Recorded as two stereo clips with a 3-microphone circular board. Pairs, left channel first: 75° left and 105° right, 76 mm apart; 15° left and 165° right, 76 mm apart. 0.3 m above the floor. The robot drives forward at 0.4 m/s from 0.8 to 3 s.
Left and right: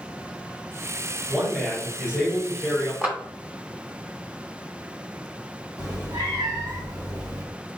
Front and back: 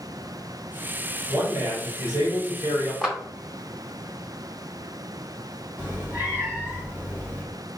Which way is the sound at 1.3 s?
Straight behind.